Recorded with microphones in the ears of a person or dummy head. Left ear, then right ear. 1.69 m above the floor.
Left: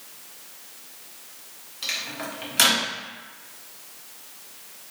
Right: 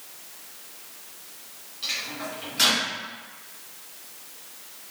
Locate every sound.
1.8 s a microwave: 30° left (ahead or behind), 0.5 m